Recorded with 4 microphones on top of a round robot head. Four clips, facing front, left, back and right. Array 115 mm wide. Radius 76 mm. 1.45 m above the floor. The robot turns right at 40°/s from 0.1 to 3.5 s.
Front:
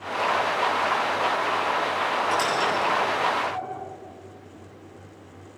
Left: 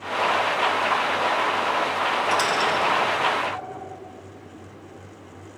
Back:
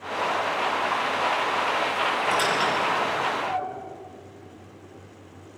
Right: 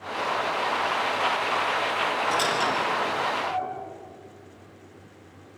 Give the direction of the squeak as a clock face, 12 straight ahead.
7 o'clock.